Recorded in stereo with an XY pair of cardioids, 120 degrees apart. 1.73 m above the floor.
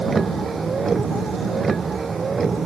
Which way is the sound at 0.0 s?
25° right.